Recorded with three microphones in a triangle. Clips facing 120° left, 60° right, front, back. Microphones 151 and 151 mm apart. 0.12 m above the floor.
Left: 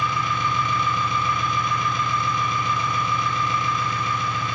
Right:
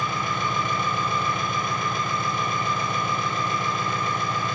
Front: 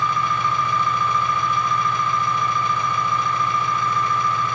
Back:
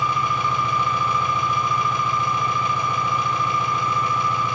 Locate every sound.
0.0 s an engine running: 100° right, 9.5 m